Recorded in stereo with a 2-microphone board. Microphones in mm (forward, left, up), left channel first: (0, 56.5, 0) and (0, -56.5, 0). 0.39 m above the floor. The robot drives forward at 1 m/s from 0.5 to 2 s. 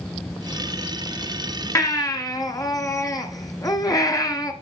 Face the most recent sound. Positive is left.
turn(degrees=30)  # may be behind; listen again after turning